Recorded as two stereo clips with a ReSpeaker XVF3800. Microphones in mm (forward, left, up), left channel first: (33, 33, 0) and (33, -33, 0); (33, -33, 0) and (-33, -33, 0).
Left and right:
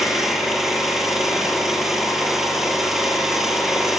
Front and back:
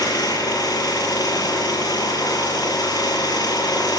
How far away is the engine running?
About 7.5 m.